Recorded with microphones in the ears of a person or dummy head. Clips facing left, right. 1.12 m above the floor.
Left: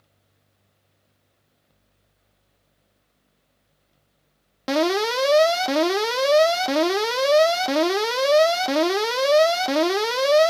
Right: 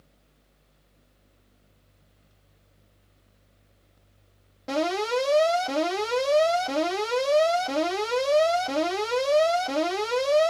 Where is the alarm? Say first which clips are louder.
Left 4 dB; 65° left (ahead or behind), 0.6 m.